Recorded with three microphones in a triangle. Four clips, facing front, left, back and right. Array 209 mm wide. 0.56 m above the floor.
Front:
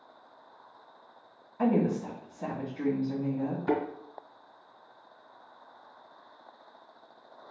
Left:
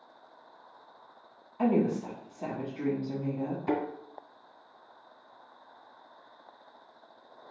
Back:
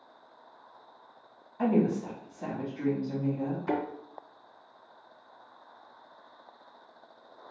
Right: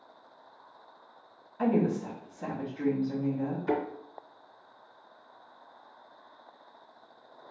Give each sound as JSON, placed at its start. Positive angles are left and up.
{"t": 1.6, "sound": "a woman speaking", "azimuth_deg": 80, "distance_m": 1.0}
{"t": 3.7, "sound": "a thud", "azimuth_deg": 45, "distance_m": 1.9}